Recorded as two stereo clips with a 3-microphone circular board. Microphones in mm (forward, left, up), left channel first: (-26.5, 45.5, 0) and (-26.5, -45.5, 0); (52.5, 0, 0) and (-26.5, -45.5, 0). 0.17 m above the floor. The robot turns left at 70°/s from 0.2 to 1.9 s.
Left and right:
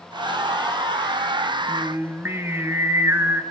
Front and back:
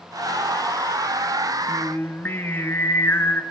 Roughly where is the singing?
Ahead.